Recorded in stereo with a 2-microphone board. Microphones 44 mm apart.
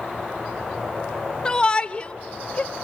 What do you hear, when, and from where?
1.4 s a shout: 20° left (ahead or behind), 0.8 m; by 2.7 s 30° left (ahead or behind), 1.4 m